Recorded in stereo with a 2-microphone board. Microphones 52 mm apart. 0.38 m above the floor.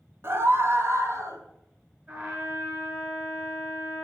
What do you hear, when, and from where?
0.2 s a scream: 50° right (ahead or behind), 2 m; by 1.4 s 65° right (ahead or behind), 3.5 m
2.1 s a trumpet: 25° right (ahead or behind), 7 m